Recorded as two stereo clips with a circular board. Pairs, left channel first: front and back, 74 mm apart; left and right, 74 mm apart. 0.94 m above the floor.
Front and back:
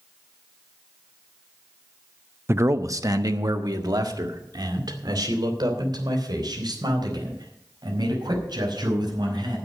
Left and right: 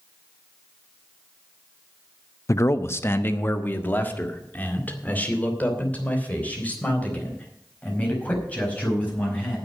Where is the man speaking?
130° left, 0.6 m; by 9.6 s 160° left, 6 m.